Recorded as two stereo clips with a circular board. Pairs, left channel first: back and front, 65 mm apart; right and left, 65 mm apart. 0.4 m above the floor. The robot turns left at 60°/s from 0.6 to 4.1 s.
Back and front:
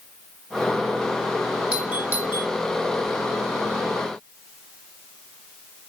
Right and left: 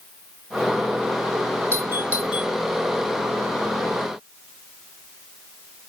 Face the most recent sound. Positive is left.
turn(degrees=-80)